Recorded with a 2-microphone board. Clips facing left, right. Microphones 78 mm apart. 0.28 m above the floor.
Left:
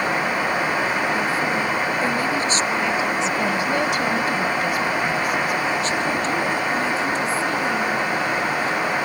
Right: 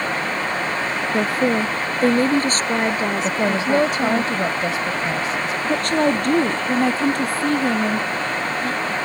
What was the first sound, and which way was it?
A woman speaking, 55° right (ahead or behind).